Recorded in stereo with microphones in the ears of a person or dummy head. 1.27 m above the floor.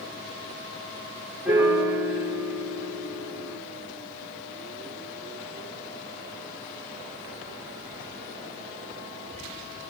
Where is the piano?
5° right (ahead or behind), 1.1 m.